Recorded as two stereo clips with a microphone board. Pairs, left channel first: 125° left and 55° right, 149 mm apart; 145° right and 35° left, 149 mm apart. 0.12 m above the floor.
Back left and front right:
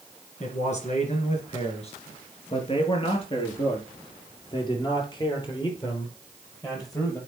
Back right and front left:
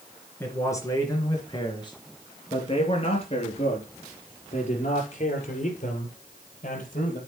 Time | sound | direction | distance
0.4 | a man speaking | 145° left | 3 m